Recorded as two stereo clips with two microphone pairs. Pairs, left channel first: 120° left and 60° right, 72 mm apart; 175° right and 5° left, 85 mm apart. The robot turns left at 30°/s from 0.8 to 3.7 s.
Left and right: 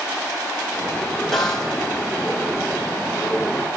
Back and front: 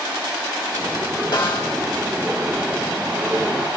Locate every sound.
1.3 s a snare drum: 155° right, 3.5 m; by 1.7 s 165° right, 3.5 m